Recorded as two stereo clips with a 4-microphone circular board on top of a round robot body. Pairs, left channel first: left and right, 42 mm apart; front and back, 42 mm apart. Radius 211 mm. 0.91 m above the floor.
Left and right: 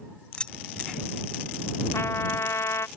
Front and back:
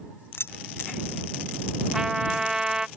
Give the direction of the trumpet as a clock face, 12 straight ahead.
9 o'clock.